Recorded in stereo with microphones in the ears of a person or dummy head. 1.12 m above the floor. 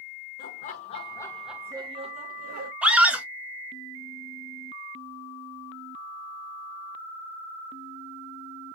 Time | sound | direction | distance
0.4 | laughter | 45° left (ahead or behind) | 1.0 m
2.8 | a scream | centre (ahead or behind) | 1.5 m